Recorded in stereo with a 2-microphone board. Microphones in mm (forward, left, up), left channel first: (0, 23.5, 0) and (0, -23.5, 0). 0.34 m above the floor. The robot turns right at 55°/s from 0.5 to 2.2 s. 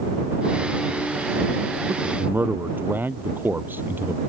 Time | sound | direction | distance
1.9 | a man speaking | 60° right (ahead or behind) | ?